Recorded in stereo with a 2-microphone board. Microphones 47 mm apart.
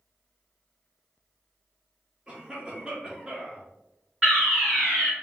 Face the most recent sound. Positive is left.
turn(degrees=-15)  # may be behind; listen again after turning